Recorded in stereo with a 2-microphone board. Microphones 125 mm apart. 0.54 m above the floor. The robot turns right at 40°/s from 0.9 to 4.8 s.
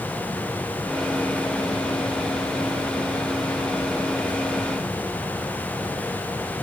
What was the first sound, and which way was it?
Only background noise.